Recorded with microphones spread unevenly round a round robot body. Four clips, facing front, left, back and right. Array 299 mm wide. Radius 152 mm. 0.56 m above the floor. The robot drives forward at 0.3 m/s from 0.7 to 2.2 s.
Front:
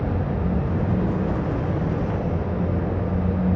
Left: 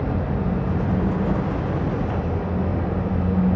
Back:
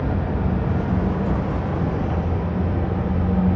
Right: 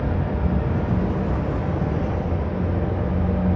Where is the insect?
145° right, 1.3 m; by 3.5 s 155° right, 1.6 m.